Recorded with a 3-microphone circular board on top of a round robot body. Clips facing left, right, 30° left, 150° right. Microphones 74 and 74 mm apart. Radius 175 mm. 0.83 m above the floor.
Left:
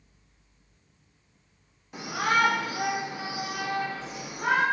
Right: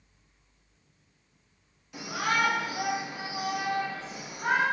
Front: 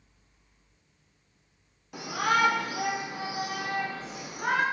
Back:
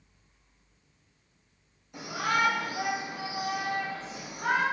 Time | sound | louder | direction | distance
1.9 | a shout | left 3 dB, front 3 dB | 40° left | 2.5 m